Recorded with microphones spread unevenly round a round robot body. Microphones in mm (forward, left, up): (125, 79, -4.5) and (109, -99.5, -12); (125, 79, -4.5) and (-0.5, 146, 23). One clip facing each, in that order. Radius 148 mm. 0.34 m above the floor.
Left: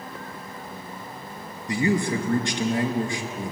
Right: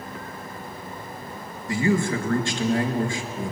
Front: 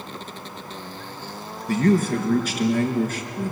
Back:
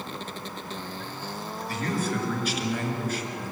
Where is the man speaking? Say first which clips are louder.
Right 1 dB, front 10 dB; 15° left, 4.5 m.